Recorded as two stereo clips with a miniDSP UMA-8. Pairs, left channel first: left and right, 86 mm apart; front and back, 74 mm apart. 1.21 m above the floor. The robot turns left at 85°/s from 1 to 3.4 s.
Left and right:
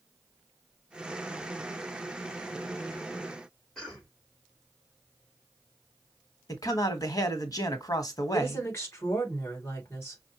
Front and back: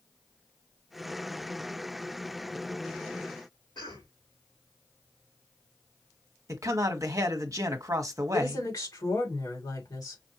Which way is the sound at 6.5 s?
140° left.